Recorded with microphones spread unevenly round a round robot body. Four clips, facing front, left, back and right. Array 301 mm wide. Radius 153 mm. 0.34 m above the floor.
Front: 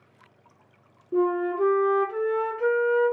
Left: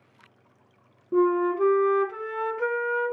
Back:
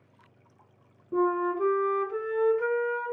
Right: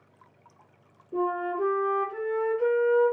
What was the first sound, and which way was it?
A flute, 100° left.